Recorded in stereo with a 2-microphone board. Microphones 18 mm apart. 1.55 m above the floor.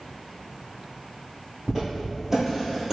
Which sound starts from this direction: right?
Footsteps, at 1.7 s.